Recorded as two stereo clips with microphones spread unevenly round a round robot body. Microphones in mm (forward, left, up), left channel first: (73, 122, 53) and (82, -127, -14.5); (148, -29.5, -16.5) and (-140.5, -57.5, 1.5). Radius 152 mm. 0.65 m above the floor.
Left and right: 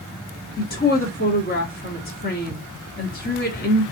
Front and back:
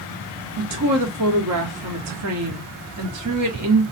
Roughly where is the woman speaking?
Behind left.